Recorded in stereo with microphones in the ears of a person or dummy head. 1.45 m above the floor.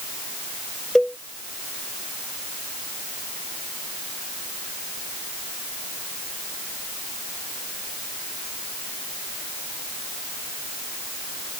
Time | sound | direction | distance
0.9 | a cowbell | centre (ahead or behind) | ?